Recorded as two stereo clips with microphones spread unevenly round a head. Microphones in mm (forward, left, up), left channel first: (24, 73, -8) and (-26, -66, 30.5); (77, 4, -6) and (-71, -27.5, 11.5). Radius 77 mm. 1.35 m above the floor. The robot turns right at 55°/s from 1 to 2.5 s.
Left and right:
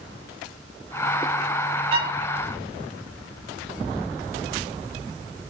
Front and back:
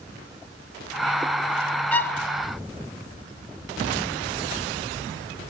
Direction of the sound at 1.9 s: 75° right.